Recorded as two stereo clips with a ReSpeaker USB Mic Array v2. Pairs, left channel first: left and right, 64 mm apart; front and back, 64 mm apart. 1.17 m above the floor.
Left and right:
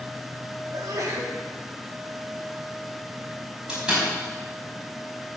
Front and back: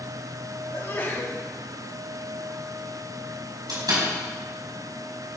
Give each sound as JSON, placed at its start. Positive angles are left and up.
{"t": 0.7, "sound": "a sneeze", "azimuth_deg": -55, "distance_m": 3.0}
{"t": 3.7, "sound": "a door slam", "azimuth_deg": -165, "distance_m": 4.5}